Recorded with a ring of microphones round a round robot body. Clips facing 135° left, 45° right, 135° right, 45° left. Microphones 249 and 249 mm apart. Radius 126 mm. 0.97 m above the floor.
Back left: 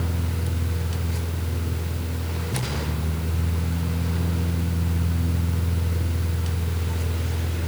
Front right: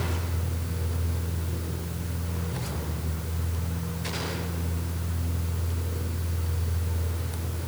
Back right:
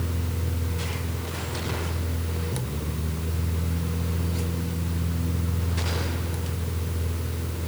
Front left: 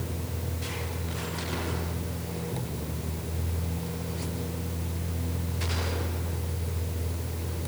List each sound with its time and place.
Only background noise.